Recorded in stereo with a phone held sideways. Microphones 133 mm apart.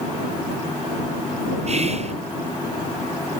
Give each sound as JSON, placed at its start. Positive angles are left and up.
{"t": 1.7, "sound": "whispering", "side_deg": -50}